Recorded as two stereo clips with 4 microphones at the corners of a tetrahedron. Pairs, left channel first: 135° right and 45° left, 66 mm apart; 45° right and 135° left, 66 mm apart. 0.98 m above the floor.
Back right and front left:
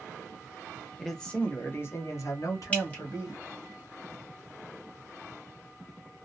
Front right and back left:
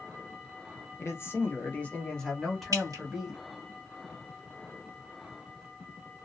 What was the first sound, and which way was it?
A man speaking, 50° right.